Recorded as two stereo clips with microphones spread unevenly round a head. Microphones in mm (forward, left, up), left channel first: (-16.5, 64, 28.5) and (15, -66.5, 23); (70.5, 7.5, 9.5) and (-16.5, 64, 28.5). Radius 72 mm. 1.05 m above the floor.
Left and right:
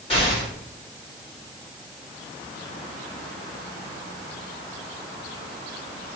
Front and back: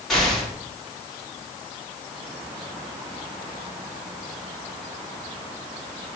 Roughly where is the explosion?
Ahead left.